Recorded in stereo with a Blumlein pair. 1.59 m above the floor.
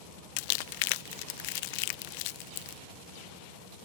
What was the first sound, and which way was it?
Crumpling, 45° left.